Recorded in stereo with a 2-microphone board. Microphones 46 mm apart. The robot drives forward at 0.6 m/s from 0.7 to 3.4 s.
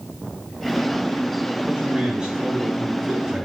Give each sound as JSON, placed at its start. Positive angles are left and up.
{"t": 1.7, "sound": "a man speaking", "side_deg": -20, "distance_m": 4.0}